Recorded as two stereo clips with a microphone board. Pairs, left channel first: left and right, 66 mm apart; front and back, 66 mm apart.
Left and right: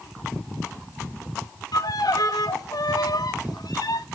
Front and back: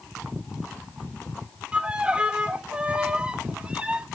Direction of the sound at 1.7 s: 105° left.